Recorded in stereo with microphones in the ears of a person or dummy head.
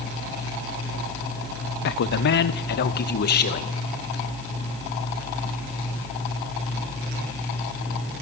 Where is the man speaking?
60° left (ahead or behind), 1.1 m; by 3.8 s 55° left (ahead or behind), 2 m.